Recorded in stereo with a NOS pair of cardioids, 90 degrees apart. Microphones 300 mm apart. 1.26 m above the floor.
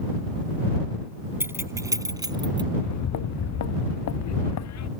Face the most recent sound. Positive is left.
turn(degrees=65)